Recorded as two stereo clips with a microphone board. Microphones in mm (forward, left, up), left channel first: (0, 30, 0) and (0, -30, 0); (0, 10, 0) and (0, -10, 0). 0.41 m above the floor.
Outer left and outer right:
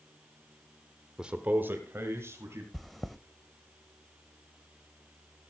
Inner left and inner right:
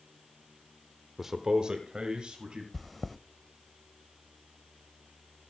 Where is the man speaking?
10° right (ahead or behind), 0.8 m; by 2.6 s 50° right (ahead or behind), 2.5 m.